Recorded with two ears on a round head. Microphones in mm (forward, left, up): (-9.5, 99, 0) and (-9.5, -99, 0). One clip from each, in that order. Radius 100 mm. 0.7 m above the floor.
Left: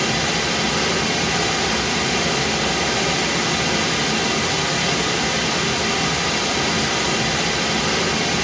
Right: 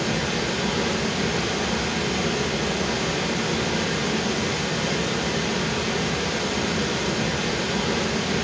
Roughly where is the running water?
Left.